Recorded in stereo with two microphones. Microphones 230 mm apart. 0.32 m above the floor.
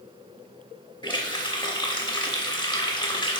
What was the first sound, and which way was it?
A running tap, 20° left (ahead or behind).